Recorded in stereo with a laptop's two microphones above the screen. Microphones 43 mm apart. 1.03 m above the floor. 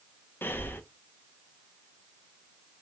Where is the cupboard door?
I don't hear a cupboard door.